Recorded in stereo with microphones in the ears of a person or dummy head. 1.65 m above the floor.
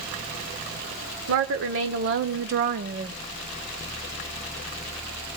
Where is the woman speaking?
70° right (ahead or behind), 1.4 m; by 3.1 s 20° right (ahead or behind), 0.5 m.